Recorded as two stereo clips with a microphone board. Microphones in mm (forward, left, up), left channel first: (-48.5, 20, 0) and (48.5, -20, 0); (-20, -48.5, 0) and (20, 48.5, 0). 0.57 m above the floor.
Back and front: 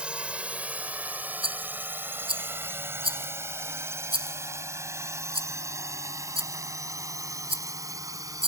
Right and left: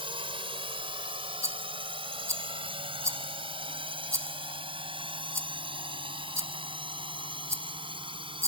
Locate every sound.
0.0 s a drone: 55° left; by 8.5 s 35° left
1.4 s a rattle: 5° left